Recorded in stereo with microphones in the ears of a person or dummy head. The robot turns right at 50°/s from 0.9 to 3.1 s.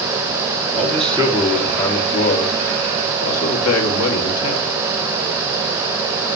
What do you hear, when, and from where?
0.7 s a man speaking: 30° right, 1.8 m; by 4.7 s 80° left, 1.8 m